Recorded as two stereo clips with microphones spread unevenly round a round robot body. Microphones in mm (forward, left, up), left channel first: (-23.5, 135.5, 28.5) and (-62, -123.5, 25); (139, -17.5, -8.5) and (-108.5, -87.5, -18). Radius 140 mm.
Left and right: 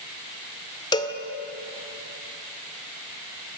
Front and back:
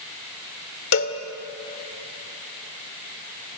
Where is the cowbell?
15° left, 1.8 m.